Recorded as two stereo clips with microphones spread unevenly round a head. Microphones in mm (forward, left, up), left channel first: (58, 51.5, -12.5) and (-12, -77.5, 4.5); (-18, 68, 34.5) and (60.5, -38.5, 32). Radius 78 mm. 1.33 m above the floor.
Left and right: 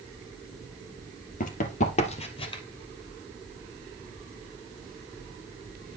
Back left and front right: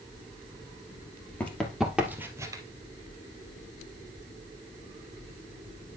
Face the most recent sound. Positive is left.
turn(degrees=5)